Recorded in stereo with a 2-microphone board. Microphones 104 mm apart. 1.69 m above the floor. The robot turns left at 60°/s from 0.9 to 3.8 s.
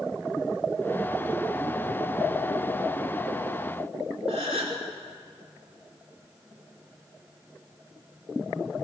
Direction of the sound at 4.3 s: 85° right.